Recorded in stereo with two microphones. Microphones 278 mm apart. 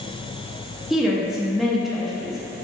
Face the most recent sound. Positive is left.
turn(degrees=0)  # may be behind; listen again after turning